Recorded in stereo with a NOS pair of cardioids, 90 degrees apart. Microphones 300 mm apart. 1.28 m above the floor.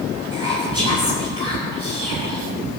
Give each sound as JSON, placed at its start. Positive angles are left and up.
{"t": 0.3, "sound": "whispering", "azimuth_deg": 20, "distance_m": 4.5}